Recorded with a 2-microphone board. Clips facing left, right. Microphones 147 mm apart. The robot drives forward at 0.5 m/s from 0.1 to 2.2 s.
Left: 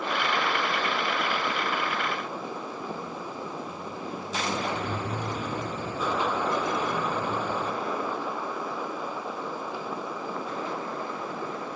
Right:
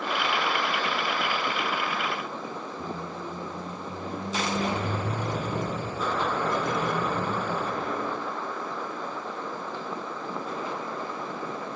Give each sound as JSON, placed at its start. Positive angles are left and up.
{"t": 2.8, "sound": "a squeak", "side_deg": -55, "distance_m": 1.3}